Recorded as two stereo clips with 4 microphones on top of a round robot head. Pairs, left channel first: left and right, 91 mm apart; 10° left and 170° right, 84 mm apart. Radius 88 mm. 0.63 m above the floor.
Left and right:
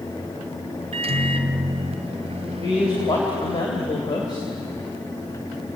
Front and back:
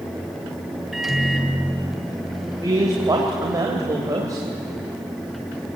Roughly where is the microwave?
Right.